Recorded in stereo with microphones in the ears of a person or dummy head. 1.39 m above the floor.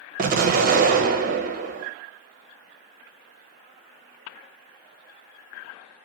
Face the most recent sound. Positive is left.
turn(degrees=-40)  # may be behind; listen again after turning